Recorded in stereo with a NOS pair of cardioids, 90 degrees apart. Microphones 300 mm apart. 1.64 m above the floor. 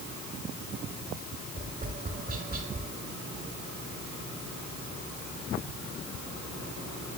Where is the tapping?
30° right, 4 m.